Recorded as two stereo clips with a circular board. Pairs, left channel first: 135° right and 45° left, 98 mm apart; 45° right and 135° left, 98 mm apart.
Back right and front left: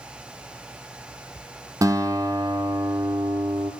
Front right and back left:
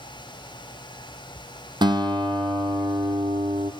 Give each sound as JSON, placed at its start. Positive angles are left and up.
{"t": 1.8, "sound": "a guitar", "azimuth_deg": 100, "distance_m": 1.3}